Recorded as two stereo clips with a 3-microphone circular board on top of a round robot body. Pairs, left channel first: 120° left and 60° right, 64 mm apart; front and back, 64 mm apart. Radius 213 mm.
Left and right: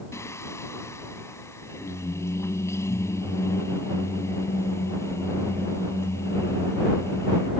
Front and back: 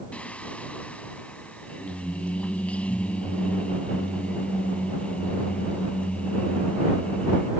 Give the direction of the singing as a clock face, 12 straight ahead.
10 o'clock.